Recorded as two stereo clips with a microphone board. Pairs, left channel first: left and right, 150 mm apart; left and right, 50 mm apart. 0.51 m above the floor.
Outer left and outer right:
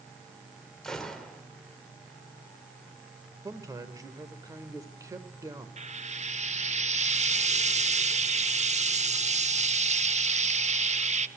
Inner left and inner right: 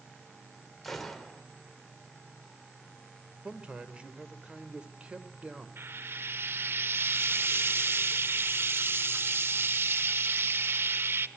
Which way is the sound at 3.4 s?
20° right (ahead or behind).